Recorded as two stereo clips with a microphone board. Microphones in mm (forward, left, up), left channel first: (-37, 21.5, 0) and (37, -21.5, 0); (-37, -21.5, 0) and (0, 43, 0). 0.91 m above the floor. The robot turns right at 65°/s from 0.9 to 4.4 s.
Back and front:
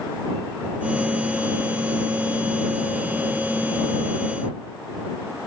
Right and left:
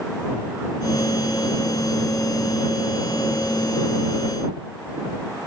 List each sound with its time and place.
Only background noise.